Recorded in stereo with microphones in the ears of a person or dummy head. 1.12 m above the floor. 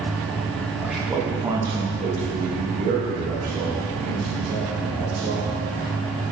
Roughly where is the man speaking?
Centre.